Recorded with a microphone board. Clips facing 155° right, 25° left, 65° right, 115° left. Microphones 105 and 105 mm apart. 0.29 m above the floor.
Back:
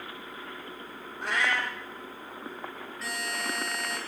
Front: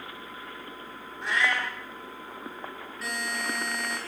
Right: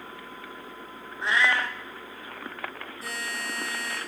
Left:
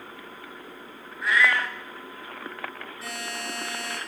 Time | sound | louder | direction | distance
1.2 | a cat meowing | front 1 dB, left 1 dB | 130° right | 1.1 m
3.0 | a buzzer | front 2 dB, even | 110° left | 4.5 m